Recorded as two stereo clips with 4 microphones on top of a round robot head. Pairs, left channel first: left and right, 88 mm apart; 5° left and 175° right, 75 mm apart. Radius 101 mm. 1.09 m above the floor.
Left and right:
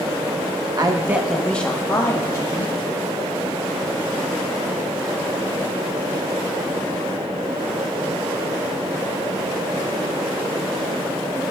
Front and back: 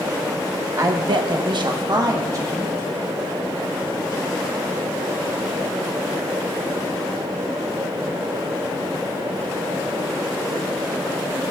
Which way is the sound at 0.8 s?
130° right.